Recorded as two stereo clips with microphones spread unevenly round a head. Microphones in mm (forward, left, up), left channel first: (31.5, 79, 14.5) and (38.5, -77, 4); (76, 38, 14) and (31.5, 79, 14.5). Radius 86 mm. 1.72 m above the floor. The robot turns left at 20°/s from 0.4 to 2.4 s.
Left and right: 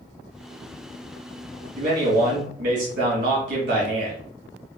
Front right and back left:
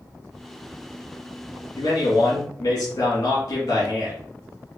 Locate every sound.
1.8 s a man speaking: 60° right, 1.9 m; by 4.2 s 75° right, 1.9 m